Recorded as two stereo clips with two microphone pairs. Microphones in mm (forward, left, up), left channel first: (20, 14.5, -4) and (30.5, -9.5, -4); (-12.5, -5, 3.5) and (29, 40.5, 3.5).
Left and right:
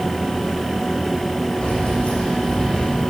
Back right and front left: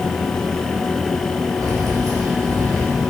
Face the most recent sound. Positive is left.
turn(degrees=50)